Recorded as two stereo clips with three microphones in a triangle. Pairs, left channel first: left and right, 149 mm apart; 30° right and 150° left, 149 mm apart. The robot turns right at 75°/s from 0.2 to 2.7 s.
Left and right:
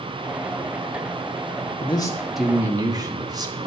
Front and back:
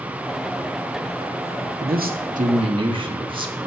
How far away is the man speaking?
About 1.6 m.